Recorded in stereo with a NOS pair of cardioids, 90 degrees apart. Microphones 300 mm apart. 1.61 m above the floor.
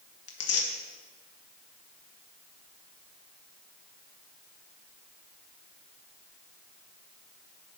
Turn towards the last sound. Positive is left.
turn(degrees=55)